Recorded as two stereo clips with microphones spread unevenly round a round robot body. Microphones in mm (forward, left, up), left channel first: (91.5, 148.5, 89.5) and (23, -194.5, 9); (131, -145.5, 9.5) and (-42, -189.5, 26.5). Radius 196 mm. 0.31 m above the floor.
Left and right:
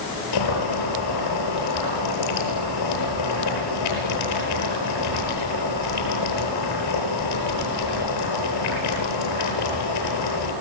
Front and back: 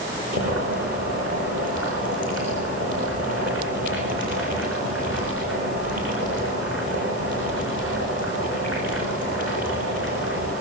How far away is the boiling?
About 10 m.